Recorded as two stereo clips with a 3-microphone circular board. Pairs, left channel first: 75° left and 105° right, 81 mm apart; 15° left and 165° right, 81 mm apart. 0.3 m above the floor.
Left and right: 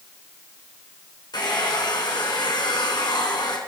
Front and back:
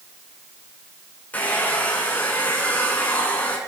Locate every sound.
1.3 s a hair dryer: 85° left, 3 m